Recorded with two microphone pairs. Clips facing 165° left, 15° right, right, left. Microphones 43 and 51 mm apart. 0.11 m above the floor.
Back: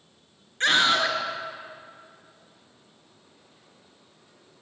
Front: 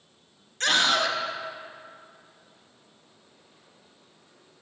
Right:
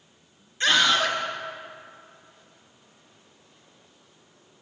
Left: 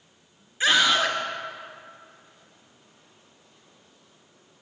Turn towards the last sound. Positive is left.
turn(degrees=160)